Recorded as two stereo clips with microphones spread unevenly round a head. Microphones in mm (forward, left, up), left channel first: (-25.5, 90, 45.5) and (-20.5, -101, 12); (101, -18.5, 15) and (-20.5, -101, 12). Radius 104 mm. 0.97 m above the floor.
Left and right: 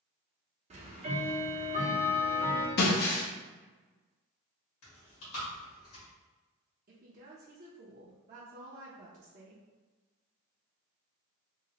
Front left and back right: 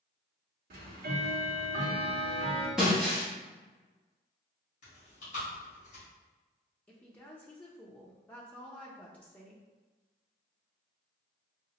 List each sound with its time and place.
0.7 s ticking: 145° right, 0.7 m
2.8 s breaking glass: 125° left, 0.6 m
4.8 s chewing: 80° left, 1.8 m
6.9 s a woman speaking: 50° right, 0.6 m